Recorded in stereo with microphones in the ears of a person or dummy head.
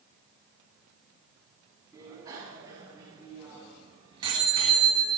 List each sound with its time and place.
1.9 s a bicycle bell: 20° right (ahead or behind), 8.5 m; by 5.2 s 25° right (ahead or behind), 6.5 m